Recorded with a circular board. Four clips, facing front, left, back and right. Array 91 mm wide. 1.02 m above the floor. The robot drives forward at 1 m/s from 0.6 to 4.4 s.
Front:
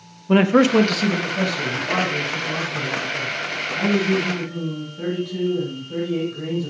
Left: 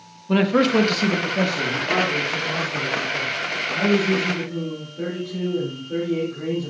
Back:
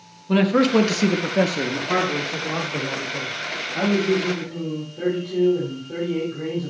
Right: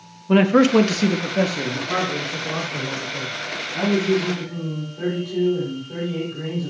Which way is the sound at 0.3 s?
30° right.